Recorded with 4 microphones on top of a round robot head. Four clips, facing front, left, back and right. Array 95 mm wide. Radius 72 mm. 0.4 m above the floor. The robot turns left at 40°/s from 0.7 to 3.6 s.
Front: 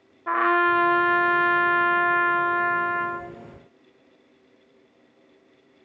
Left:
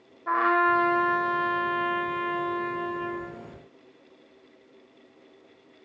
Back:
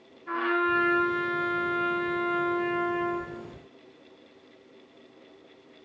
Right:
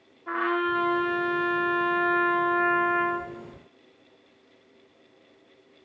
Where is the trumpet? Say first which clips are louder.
Left 4 dB, front 6 dB; 25° left, 0.8 m; by 3.3 s 80° right, 0.8 m.